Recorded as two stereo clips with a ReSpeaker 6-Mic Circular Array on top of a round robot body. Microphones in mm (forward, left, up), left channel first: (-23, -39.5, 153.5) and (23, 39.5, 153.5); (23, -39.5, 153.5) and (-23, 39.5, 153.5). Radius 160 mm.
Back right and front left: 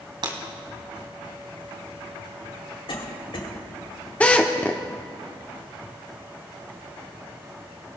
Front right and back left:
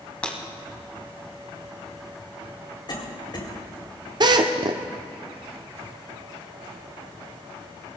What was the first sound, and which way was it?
Breaking glass, 20° left.